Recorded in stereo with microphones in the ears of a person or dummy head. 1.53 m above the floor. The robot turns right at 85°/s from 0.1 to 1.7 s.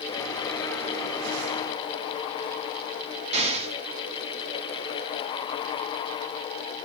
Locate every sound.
3.3 s an explosion: 30° right (ahead or behind), 1.0 m